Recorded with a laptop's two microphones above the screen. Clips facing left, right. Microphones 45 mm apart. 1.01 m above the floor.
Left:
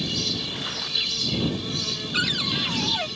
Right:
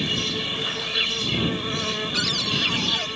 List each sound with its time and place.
0.0 s an insect: 40° right (ahead or behind)
2.1 s a cupboard door: 20° left (ahead or behind)